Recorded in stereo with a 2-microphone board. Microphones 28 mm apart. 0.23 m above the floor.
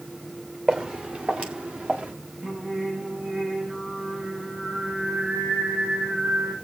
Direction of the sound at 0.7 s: 35° right (ahead or behind).